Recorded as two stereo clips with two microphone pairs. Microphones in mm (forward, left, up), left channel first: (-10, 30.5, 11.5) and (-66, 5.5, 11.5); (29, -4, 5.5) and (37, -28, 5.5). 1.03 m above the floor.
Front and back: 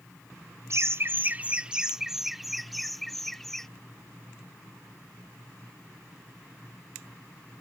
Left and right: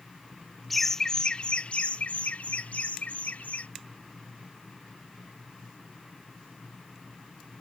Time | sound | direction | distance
0.7 | laughter | 170° right | ?